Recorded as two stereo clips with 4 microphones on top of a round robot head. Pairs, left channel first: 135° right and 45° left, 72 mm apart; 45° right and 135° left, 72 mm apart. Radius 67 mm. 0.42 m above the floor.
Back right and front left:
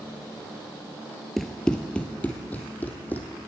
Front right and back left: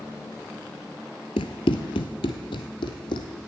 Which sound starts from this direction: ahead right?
Running footsteps, at 1.4 s.